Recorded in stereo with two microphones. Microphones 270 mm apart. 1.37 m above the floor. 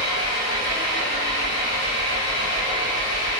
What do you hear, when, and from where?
0.0 s an engine running: 75° left (ahead or behind), 1.3 m